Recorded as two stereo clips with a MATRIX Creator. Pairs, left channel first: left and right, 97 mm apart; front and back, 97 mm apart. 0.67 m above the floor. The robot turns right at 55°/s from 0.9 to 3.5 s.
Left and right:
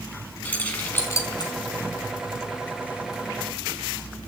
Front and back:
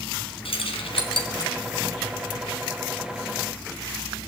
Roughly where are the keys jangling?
Ahead.